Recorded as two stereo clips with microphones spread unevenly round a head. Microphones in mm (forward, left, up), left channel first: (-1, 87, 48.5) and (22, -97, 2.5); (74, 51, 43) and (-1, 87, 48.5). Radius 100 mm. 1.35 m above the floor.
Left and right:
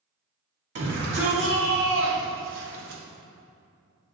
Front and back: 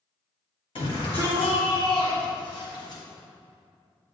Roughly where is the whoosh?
I don't hear a whoosh.